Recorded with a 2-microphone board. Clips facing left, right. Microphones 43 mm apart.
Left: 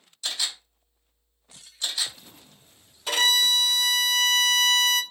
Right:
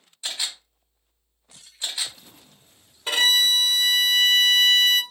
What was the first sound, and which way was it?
A camera shutter, 25° right (ahead or behind).